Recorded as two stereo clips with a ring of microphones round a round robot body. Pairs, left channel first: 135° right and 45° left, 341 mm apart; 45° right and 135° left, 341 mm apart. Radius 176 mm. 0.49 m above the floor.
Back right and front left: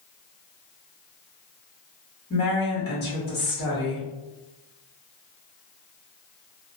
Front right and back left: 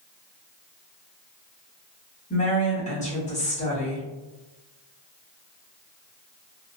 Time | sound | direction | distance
2.3 | a woman speaking | 100° right | 1.3 m